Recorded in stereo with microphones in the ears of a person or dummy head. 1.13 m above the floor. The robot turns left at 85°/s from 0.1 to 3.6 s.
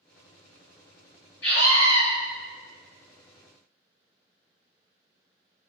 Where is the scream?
130° left, 1.5 m; by 2.0 s 80° left, 1.5 m.